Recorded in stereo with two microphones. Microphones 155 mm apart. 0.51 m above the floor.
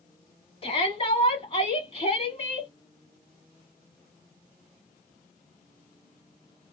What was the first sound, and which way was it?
A shout, 35° left (ahead or behind).